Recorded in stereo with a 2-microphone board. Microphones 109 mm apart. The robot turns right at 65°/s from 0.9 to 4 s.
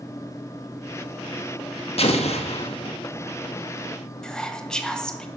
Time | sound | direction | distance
2.0 | an explosion | 70° left | 1.2 m
4.2 | whispering | 5° left (ahead or behind) | 1.1 m